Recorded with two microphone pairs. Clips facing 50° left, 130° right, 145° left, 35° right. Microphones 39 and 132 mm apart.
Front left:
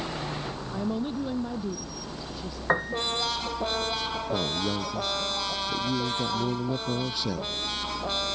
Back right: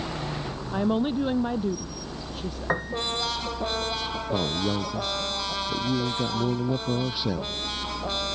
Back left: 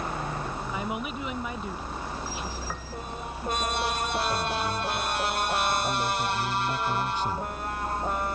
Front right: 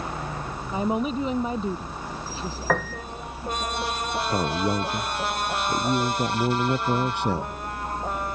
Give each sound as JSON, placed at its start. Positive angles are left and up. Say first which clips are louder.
{"t": 0.7, "sound": "a woman speaking", "louder": "back right 6 dB, front right 11 dB", "azimuth_deg": -95}
{"t": 2.7, "sound": "a piano", "louder": "front left 2 dB, front right 11 dB", "azimuth_deg": -30}
{"t": 4.3, "sound": "a man speaking", "louder": "back right 3 dB, front right 4 dB", "azimuth_deg": -60}